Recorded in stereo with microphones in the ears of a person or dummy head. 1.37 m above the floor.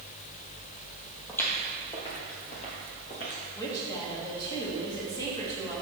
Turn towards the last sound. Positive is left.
turn(degrees=20)  # may be behind; listen again after turning